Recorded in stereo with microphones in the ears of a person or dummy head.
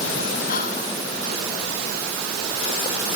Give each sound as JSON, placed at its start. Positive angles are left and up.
{"t": 0.5, "sound": "whispering", "side_deg": 50, "distance_m": 1.0}